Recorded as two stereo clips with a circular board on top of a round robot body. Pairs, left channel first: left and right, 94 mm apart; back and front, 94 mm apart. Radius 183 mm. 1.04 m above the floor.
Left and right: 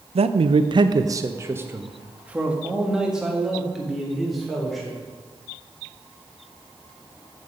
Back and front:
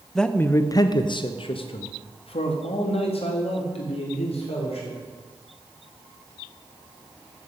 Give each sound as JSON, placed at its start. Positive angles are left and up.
{"t": 0.1, "sound": "a man speaking", "azimuth_deg": -95, "distance_m": 0.7}